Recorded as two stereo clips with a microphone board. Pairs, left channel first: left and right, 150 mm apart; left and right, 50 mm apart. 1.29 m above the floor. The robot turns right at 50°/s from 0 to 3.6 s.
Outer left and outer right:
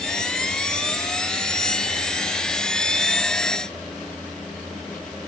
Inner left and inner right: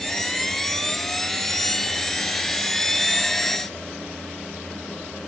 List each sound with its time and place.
Only background noise.